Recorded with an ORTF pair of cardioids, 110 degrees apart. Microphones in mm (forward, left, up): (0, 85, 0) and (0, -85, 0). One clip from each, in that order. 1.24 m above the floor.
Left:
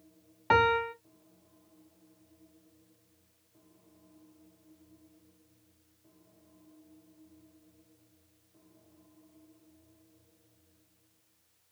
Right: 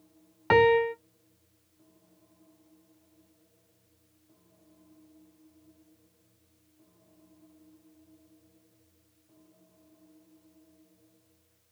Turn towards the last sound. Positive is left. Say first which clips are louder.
# right 4 dB
turn(degrees=-20)